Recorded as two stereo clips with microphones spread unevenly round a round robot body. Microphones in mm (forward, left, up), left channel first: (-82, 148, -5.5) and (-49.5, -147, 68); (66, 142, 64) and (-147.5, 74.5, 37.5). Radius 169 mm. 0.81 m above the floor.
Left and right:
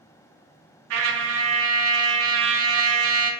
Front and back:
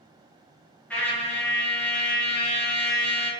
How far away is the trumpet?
About 0.6 m.